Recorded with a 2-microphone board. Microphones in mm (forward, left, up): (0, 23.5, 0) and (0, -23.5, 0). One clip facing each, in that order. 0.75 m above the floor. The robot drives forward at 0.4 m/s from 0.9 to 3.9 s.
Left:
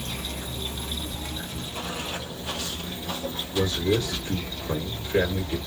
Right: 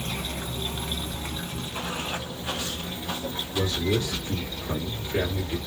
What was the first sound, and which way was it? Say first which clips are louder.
Running water: right 2 dB; 40° right (ahead or behind).